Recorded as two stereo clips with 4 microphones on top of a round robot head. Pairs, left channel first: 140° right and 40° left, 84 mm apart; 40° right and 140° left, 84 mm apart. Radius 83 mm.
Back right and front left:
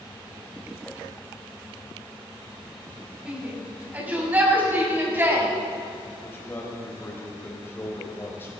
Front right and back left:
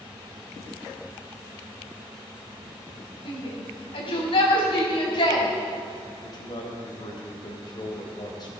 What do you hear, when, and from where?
3.2 s a shout: 35° right, 4.5 m; by 5.5 s 20° right, 5 m
6.2 s a man speaking: 75° right, 3.5 m